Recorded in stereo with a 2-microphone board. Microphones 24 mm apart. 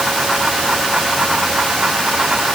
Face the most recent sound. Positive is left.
No sound to turn to.